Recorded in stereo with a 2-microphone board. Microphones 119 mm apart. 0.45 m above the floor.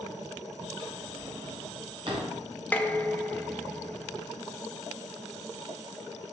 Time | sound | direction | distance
0.8 | a drawer | 40° right (ahead or behind) | 3 m
2.7 | dishes clattering | 15° left (ahead or behind) | 0.8 m